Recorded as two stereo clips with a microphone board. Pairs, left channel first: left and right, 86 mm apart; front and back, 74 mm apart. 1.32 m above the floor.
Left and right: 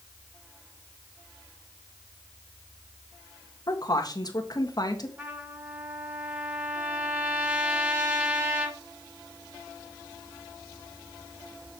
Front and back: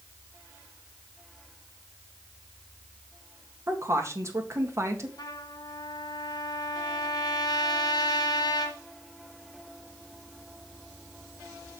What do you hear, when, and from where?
3.7 s a woman speaking: 130° left, 1.6 m
5.2 s a trumpet: 25° right, 1.8 m